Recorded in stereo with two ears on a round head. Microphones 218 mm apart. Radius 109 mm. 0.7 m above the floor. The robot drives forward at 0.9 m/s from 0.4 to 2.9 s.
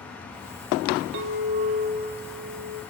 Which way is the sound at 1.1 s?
55° right (ahead or behind).